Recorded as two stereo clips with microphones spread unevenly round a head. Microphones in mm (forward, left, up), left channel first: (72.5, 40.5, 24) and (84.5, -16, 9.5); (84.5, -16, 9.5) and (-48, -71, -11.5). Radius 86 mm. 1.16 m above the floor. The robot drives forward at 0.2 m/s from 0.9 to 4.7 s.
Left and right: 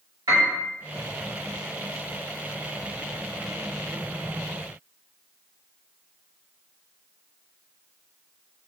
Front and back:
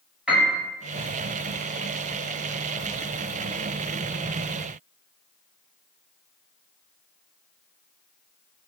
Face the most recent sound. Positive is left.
turn(degrees=-100)